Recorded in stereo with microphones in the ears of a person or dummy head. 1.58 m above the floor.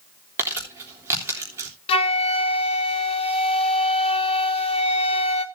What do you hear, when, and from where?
0.4 s crumpling: 15° right (ahead or behind), 3.5 m
1.9 s a flute: 30° left (ahead or behind), 1.1 m